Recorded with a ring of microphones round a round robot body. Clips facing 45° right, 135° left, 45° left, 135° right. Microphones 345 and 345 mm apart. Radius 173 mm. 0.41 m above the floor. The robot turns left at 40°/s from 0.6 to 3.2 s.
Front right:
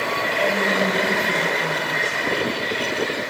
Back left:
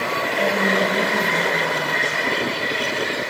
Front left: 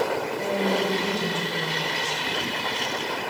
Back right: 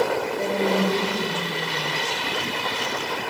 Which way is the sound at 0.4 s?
170° right.